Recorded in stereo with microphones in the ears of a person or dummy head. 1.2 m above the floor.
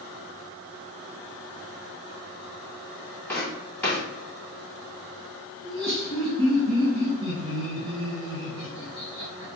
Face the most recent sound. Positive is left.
turn(degrees=-65)  # may be behind; listen again after turning